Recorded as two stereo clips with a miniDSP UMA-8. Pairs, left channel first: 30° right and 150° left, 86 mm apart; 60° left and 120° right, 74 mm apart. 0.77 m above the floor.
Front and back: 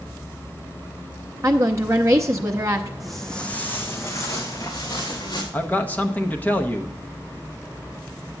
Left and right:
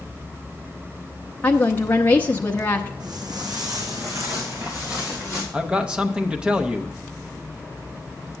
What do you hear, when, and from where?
1.4 s a woman speaking: 115° left, 0.6 m
3.0 s footsteps: 125° right, 1.8 m; by 5.4 s 65° right, 3.5 m
5.5 s a man speaking: 60° right, 0.7 m